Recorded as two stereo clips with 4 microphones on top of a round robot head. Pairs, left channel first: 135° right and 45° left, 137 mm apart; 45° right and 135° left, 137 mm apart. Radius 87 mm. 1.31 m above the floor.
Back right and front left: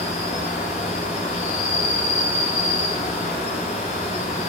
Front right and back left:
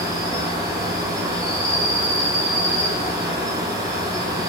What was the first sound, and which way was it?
An insect, 160° right.